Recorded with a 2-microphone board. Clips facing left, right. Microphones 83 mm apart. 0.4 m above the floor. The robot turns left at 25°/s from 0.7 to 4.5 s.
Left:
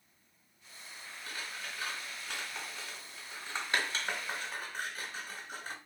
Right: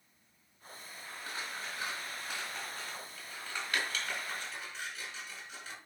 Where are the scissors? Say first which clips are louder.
Right 2 dB; 30° right (ahead or behind), 3.5 m; by 5.8 s 50° left (ahead or behind), 3.5 m.